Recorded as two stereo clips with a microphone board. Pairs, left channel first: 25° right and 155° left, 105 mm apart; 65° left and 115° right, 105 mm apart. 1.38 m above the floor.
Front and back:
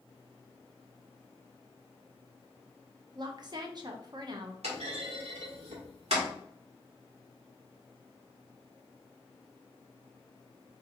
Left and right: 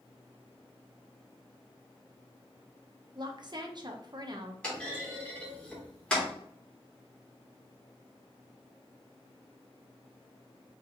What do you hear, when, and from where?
3.1 s a woman speaking: 155° right, 0.8 m
4.6 s a clunk: 145° left, 1.7 m